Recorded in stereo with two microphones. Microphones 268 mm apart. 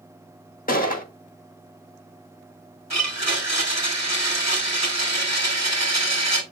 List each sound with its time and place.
0.7 s a gunshot: 30° left (ahead or behind), 1.6 m
2.9 s a blender: 75° right (ahead or behind), 2 m